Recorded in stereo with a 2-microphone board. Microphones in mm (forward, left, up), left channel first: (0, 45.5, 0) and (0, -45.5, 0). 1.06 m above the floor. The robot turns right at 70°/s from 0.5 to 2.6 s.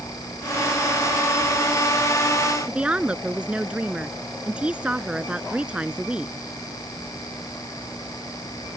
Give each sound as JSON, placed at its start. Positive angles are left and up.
{"t": 2.7, "sound": "a woman speaking", "side_deg": -10}